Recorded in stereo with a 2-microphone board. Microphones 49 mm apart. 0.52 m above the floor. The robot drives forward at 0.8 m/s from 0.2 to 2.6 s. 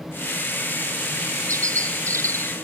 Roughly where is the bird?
Right.